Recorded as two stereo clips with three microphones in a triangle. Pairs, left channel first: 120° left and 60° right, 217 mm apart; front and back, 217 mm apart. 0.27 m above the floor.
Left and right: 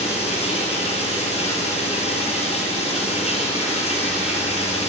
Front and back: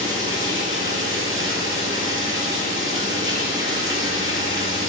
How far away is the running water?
About 1.1 m.